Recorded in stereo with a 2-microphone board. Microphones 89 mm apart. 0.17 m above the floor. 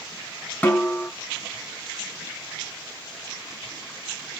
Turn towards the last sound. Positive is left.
turn(degrees=15)  # may be behind; listen again after turning